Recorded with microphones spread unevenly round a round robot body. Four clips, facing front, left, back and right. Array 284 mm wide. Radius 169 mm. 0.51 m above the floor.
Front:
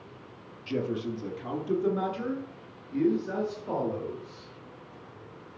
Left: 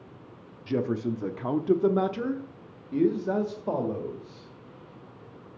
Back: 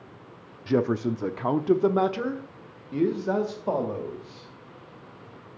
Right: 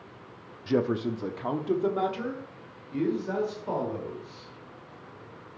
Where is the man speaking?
150° right, 0.8 m; by 4.5 s 115° left, 2.5 m.